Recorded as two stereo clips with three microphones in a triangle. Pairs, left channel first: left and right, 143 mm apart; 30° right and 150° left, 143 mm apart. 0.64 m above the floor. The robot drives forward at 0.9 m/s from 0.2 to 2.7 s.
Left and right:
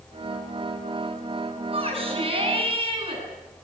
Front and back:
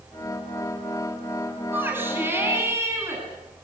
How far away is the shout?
About 8 m.